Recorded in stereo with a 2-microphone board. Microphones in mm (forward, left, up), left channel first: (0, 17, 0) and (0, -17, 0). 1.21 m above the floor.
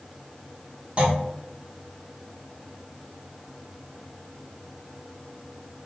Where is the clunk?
30° right (ahead or behind), 1.0 m.